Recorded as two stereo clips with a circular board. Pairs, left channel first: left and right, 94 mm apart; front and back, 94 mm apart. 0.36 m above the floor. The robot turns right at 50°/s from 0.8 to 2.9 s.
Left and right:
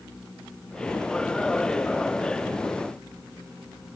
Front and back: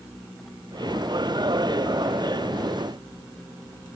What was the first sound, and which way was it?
Only background noise.